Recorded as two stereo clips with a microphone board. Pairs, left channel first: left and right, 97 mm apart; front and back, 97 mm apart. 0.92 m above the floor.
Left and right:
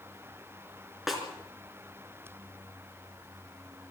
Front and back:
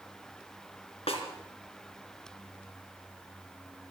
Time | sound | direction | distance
1.1 | a snare drum | 5° right | 4 m